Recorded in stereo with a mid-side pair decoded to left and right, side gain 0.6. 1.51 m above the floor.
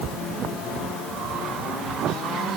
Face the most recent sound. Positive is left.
No sound to turn to.